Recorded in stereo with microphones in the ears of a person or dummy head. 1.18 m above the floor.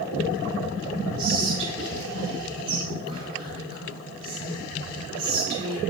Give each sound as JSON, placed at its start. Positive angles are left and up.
{"t": 1.2, "sound": "whispering", "side_deg": -30, "distance_m": 3.0}